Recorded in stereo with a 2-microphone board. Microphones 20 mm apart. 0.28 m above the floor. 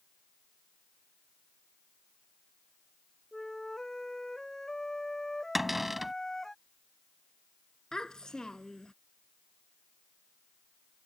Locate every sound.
3.3 s a flute: 30° left (ahead or behind)
5.5 s a cupboard door: 15° right (ahead or behind)
7.9 s a child speaking: 35° left (ahead or behind)